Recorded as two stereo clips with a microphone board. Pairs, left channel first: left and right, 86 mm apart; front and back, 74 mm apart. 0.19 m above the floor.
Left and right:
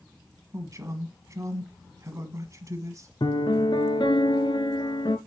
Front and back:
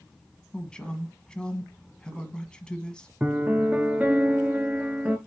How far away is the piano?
About 0.7 m.